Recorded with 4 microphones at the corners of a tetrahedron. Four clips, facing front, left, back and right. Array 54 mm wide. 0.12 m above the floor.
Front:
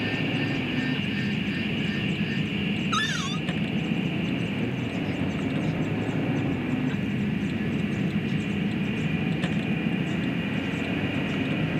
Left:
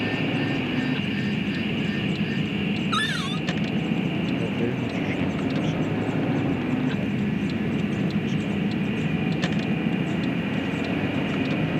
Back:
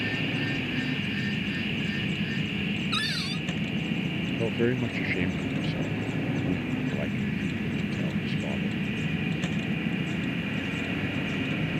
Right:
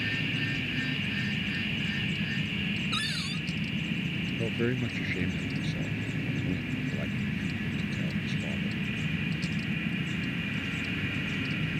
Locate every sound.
0.0 s a vehicle: 75° left
2.9 s a cupboard door: 65° left
4.4 s a man speaking: 170° left